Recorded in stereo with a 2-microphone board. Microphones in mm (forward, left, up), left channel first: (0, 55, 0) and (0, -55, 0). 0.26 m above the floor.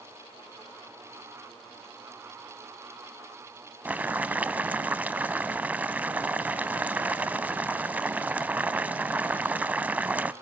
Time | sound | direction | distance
3.9 | boiling | 15° right (ahead or behind) | 0.7 m